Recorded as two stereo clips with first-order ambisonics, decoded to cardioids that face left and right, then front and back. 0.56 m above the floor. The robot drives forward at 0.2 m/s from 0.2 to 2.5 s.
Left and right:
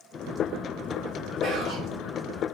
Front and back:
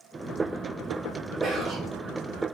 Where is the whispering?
120° right, 1.5 m; by 1.9 s 125° right, 1.5 m.